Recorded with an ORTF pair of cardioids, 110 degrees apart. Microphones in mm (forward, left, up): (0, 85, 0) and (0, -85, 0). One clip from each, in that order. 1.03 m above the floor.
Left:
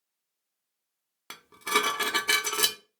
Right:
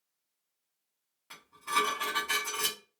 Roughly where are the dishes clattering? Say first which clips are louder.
Left 3 dB; left.